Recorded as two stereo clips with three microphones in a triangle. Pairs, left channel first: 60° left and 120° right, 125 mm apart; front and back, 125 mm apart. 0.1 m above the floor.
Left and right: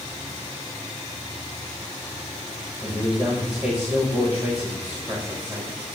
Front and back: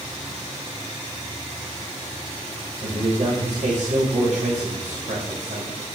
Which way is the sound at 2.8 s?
160° left.